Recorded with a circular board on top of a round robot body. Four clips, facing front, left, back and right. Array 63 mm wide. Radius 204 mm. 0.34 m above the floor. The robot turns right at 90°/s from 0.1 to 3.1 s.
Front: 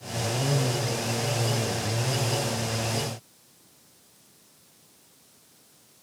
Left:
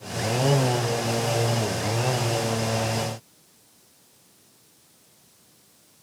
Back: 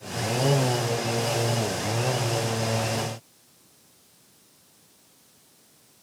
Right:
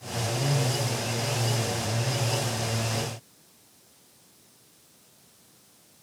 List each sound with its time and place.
Only background noise.